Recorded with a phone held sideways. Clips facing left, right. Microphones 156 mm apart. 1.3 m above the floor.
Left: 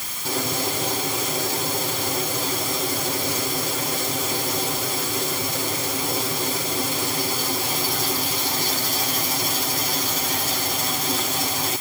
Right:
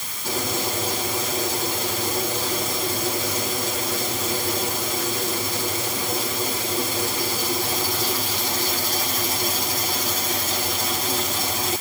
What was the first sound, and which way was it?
Only background noise.